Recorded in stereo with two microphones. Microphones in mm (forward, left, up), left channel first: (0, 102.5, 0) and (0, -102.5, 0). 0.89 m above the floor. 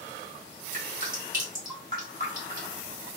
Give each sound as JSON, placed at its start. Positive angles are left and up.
{"t": 0.7, "sound": "dripping", "side_deg": -45, "distance_m": 1.6}